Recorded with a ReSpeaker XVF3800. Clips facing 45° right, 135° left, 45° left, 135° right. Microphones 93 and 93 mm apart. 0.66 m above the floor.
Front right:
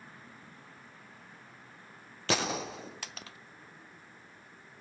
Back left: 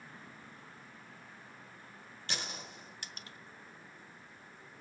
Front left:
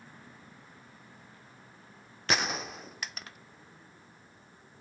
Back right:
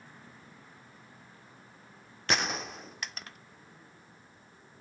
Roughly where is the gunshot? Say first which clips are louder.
Front right 12 dB, even; ahead right.